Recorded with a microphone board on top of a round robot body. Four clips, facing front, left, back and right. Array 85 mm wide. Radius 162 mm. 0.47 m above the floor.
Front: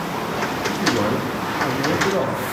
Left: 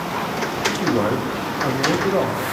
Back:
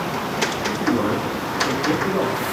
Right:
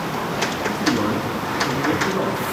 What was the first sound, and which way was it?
A man speaking, 65° left.